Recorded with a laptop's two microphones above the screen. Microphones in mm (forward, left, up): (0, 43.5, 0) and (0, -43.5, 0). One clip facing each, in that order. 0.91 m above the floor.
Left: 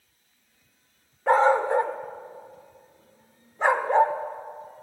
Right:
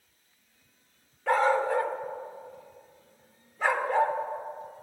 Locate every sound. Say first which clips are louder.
1.3 s a dog barking: left 5 dB; 25° left (ahead or behind), 0.8 m